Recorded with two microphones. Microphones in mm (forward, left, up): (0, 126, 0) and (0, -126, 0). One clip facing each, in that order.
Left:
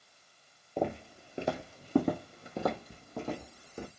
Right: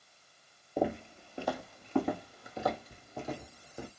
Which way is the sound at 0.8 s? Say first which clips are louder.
Right 1 dB; 10° right (ahead or behind).